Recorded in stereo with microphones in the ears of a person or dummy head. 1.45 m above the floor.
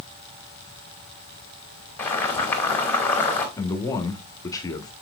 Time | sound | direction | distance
2.0 | boiling | 15° left (ahead or behind) | 2 m
3.6 | a man speaking | 25° left (ahead or behind) | 1.1 m